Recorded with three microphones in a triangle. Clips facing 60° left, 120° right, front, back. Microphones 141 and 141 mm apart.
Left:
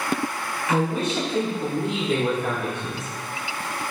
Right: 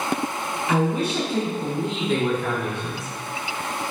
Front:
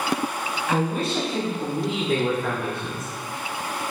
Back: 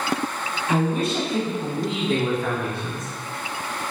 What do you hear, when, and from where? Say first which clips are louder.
0.7 s a man speaking: right 1 dB, back 2 dB; 170° right, 1.4 m; by 3.1 s 20° left, 1.4 m